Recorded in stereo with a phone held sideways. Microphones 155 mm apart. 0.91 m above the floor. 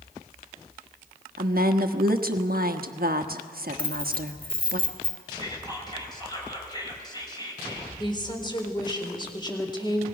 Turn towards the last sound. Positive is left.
turn(degrees=30)  # may be behind; listen again after turning